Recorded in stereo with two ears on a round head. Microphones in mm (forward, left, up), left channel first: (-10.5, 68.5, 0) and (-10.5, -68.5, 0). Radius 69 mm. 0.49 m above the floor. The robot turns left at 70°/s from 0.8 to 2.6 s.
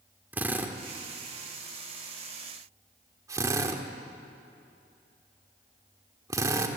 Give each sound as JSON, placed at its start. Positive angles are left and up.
{"t": 0.3, "sound": "a drill", "side_deg": -10, "distance_m": 1.5}